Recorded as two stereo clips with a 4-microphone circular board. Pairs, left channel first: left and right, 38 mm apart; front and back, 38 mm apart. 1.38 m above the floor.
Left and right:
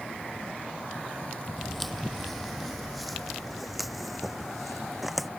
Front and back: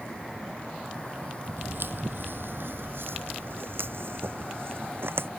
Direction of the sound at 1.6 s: 175° left.